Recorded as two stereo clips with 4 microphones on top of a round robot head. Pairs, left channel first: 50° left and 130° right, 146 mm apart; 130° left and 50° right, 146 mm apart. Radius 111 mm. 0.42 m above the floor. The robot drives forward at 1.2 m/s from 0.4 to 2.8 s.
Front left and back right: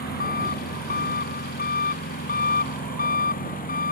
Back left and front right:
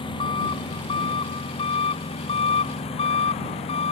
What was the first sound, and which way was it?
An engine running, 70° left.